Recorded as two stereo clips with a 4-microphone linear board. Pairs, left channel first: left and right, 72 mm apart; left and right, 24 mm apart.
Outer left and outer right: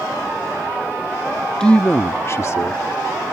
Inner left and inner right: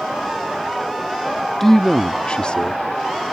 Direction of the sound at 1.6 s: 10° left (ahead or behind).